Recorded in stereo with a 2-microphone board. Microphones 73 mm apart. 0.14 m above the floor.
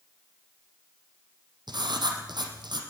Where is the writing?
75° right (ahead or behind), 4 m.